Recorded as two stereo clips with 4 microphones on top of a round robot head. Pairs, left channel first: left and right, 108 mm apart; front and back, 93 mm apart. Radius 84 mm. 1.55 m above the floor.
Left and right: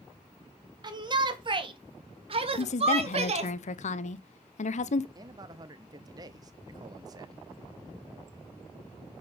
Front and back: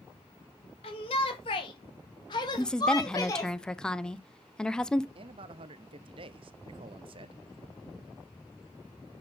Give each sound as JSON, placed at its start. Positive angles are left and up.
{"t": 0.8, "sound": "a shout", "azimuth_deg": -40, "distance_m": 3.0}
{"t": 2.6, "sound": "a woman speaking", "azimuth_deg": 85, "distance_m": 1.0}
{"t": 5.2, "sound": "a man speaking", "azimuth_deg": -150, "distance_m": 0.7}